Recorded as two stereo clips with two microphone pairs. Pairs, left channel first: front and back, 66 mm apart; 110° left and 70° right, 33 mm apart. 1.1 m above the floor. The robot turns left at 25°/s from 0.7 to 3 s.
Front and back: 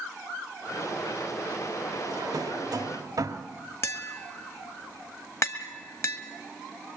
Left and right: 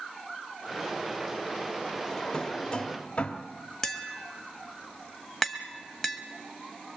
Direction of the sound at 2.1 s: 170° right.